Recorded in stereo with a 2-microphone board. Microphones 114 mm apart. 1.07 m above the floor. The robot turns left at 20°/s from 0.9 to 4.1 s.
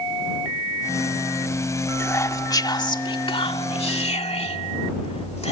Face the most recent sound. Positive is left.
turn(degrees=115)